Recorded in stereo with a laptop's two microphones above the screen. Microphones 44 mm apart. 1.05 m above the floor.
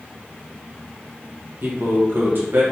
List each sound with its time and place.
1.6 s a man speaking: 55° right (ahead or behind), 1.0 m